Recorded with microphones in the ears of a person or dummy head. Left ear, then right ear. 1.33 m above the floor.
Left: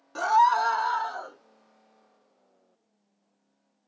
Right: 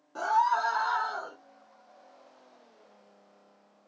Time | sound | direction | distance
0.1 | a scream | 55° left (ahead or behind) | 0.6 m